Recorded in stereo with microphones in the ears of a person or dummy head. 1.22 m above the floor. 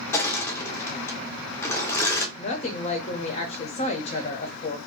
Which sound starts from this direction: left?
A woman speaking, at 2.4 s.